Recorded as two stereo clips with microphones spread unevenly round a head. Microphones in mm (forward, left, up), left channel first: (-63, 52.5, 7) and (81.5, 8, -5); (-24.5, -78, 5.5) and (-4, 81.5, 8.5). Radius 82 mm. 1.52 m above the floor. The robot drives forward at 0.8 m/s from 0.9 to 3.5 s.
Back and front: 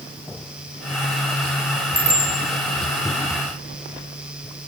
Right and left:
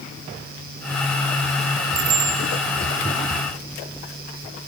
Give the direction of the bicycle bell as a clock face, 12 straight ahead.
9 o'clock.